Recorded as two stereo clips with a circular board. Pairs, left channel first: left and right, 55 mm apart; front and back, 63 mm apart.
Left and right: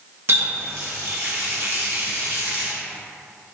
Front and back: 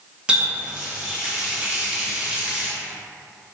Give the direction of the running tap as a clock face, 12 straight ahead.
4 o'clock.